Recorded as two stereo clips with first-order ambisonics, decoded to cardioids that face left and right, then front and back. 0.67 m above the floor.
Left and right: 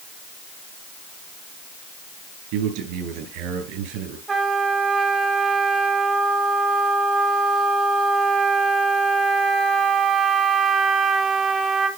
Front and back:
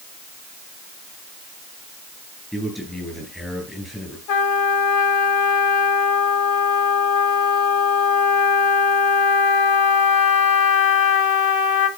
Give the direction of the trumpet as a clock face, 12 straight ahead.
1 o'clock.